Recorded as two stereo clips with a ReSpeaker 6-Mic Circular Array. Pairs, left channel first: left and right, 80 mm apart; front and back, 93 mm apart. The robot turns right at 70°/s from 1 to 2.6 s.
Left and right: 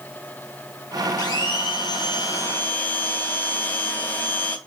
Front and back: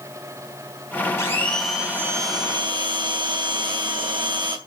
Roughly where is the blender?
Ahead left.